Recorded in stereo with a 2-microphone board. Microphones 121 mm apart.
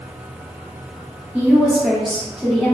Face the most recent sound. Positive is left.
turn(degrees=10)  # may be behind; listen again after turning